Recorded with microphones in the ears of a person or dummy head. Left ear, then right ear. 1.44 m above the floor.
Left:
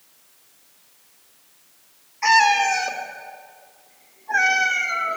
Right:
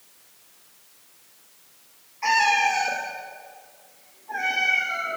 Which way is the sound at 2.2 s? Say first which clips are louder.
Left 4 dB; 30° left (ahead or behind).